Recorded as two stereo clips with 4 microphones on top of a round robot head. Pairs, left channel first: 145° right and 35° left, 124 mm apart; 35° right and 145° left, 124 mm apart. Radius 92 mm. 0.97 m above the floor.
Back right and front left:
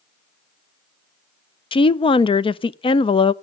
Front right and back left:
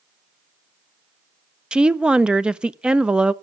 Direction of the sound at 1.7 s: 135° right.